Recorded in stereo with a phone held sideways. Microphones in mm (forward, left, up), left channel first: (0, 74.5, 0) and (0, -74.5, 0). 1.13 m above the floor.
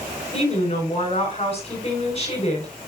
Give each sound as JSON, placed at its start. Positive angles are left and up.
{"t": 0.3, "sound": "a woman speaking", "side_deg": 40, "distance_m": 7.0}